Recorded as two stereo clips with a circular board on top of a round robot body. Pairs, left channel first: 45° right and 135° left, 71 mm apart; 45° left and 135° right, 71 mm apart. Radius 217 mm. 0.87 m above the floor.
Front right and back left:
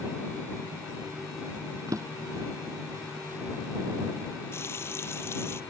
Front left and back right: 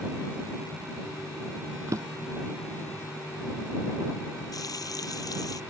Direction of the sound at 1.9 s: Straight behind.